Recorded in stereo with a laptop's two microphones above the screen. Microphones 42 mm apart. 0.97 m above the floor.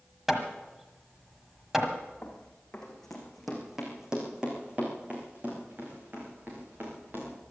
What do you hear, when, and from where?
0.3 s hammering: 5° right (ahead or behind), 1.4 m
2.2 s running footsteps: 25° left (ahead or behind), 3 m; by 7.3 s 55° right (ahead or behind), 6 m